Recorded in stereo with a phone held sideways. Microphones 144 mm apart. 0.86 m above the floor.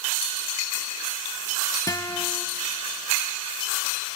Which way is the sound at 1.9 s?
25° left (ahead or behind).